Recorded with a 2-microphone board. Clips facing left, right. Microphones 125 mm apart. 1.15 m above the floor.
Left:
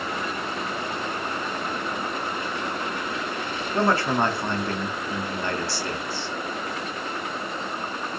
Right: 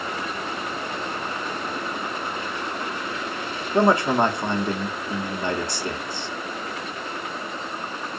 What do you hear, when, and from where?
3.7 s a man speaking: 15° right (ahead or behind), 0.7 m